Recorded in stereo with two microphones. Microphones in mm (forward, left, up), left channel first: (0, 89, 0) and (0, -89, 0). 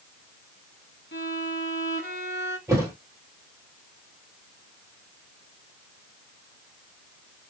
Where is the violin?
80° left, 1.2 m.